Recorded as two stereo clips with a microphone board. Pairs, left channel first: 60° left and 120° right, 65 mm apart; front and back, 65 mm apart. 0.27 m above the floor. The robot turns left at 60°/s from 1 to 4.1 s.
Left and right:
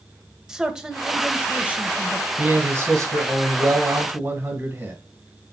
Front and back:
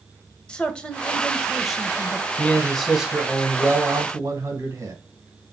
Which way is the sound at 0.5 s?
55° right.